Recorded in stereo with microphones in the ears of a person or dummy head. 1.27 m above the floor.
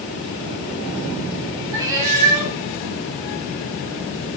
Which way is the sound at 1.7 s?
15° right (ahead or behind).